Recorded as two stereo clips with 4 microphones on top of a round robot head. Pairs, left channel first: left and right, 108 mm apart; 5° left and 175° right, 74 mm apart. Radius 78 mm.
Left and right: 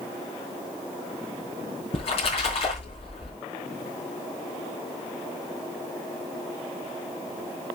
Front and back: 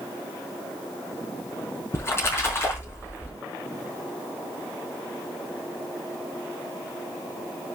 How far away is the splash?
About 4.5 m.